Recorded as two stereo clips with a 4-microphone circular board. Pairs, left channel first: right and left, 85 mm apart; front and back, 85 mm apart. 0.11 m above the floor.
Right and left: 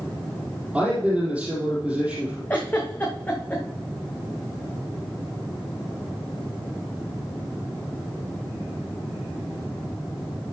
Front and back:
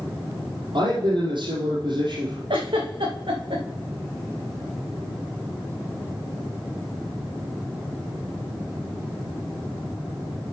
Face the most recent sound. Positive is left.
turn(degrees=-160)